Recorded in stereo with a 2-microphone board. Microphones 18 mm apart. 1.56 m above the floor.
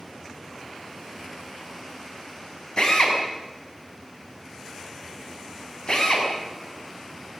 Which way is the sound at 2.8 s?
50° left (ahead or behind).